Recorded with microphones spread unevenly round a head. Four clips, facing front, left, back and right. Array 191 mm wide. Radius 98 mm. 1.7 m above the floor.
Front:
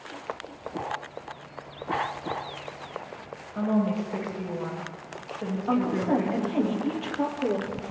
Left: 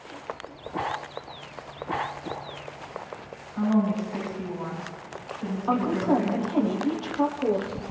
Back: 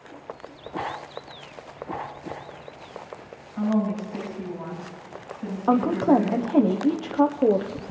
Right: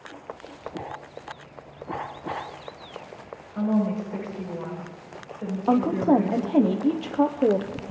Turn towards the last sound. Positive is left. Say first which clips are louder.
# right 4 dB, back 6 dB
turn(degrees=-135)